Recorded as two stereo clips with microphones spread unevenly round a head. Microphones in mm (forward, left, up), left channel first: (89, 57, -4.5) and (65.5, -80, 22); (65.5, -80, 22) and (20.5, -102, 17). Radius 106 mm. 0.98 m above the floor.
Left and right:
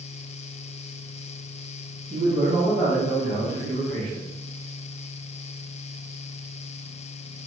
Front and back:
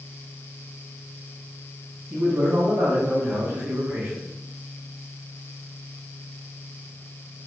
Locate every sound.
2.1 s a man speaking: 150° right, 1.2 m